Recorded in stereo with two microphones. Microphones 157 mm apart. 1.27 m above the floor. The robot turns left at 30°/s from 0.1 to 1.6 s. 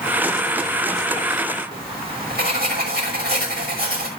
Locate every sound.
1.7 s writing: 75° right (ahead or behind), 6 m